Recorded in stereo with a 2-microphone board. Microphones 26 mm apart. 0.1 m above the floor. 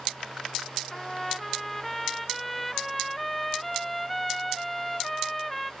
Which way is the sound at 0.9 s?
10° left (ahead or behind).